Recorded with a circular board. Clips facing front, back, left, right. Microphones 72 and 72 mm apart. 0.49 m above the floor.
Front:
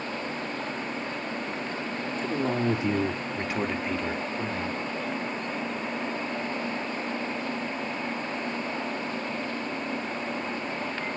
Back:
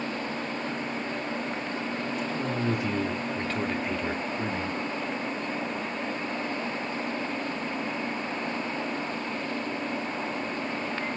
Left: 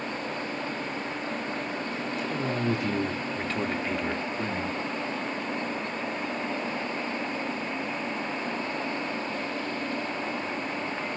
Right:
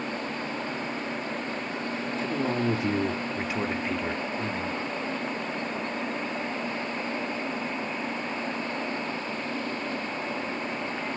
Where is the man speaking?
40° right, 1.4 m; by 4.8 s 145° left, 1.1 m.